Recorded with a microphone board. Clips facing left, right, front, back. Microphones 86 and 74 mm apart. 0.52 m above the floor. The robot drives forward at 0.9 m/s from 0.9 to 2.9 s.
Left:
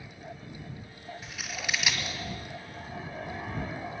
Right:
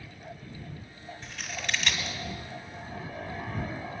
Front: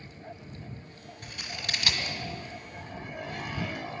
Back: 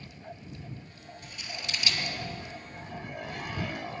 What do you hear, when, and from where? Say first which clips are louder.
1.2 s scissors: right 1 dB, front 2 dB; 5° left, 2 m; by 2.2 s 15° left, 1.4 m